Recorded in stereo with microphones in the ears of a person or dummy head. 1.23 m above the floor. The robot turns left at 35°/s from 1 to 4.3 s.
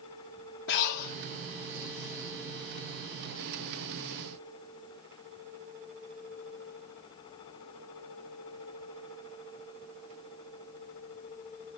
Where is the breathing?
70° left (ahead or behind), 1.2 m.